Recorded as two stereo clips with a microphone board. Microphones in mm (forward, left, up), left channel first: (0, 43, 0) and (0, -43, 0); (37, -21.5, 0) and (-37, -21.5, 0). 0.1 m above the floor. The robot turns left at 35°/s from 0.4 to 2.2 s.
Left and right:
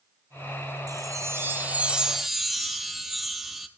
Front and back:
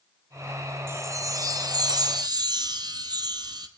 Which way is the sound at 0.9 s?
130° right.